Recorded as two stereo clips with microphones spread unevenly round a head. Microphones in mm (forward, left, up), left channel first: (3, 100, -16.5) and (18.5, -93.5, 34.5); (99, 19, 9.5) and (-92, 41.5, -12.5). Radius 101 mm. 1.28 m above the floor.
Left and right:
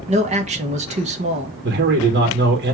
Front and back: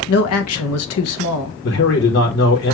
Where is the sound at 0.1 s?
25° right, 1.4 m.